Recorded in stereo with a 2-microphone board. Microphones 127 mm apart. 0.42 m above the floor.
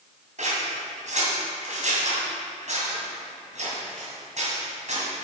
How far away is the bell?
No bell in this recording.